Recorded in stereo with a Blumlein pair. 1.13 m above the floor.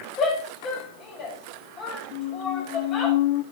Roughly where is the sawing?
No sawing in this recording.